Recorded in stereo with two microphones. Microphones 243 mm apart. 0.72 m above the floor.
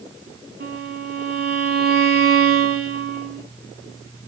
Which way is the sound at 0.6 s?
40° right (ahead or behind).